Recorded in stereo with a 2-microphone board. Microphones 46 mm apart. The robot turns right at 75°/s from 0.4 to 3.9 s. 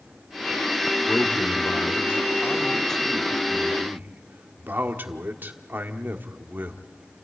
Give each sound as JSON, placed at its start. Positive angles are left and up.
{"t": 1.1, "sound": "a man speaking", "azimuth_deg": 35, "distance_m": 1.7}